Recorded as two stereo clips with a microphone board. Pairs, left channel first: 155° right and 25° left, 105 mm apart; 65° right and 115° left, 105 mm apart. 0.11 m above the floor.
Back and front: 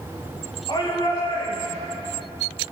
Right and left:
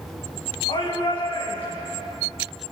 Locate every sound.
0.7 s a shout: 115° right, 10 m